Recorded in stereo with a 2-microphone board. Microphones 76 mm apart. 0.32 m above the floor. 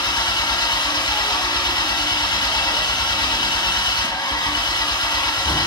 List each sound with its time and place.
0.0 s an engine running: 70° left (ahead or behind), 1.3 m